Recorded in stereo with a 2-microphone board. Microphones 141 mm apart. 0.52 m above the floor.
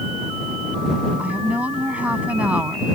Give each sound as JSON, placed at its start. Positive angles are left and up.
{"t": 1.2, "sound": "a woman speaking", "side_deg": -10}